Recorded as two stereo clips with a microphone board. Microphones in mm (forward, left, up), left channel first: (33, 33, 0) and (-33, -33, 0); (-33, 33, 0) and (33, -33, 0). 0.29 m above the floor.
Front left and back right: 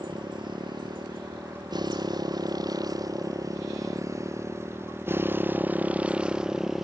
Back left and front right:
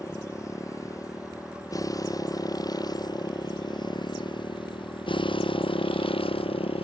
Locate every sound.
0.0 s a motorcycle: 170° right; by 6.8 s 135° left